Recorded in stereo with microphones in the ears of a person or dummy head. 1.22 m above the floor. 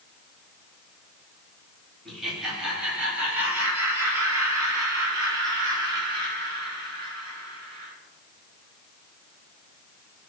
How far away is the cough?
No cough in this recording.